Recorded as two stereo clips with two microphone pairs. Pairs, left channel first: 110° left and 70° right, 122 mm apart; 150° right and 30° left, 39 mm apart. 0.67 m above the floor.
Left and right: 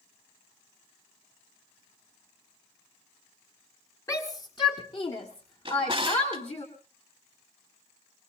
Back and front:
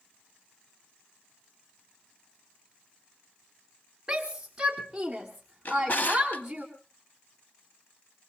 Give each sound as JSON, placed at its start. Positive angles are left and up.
{"t": 4.1, "sound": "a shout", "azimuth_deg": 85, "distance_m": 1.2}
{"t": 5.7, "sound": "a drawer", "azimuth_deg": -115, "distance_m": 1.1}